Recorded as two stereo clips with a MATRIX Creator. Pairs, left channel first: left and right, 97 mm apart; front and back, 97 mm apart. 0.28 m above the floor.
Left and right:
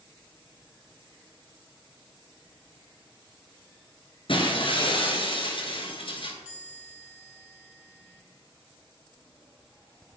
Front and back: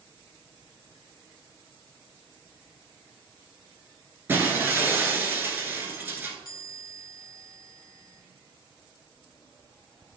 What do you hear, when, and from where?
4.3 s breaking glass: 110° left, 1.6 m
6.5 s a chime: 25° right, 2.0 m